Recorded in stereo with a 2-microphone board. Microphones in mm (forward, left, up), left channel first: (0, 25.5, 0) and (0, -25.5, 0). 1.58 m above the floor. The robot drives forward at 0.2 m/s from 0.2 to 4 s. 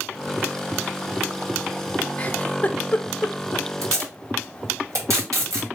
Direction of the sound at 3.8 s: 80° right.